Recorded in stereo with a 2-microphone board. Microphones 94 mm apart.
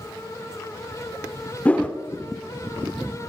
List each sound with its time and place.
1.6 s a whoosh: 15° left (ahead or behind), 1.1 m